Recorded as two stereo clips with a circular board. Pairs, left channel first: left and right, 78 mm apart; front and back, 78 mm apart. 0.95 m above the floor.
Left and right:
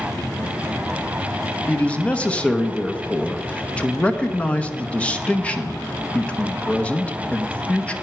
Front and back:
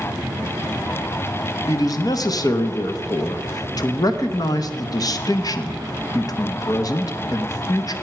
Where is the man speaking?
20° left, 0.8 m.